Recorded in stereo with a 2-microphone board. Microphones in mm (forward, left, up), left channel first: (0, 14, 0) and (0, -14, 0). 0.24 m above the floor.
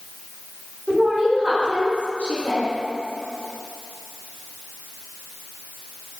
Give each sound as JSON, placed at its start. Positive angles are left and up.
{"t": 0.9, "sound": "a woman speaking", "side_deg": 20, "distance_m": 1.2}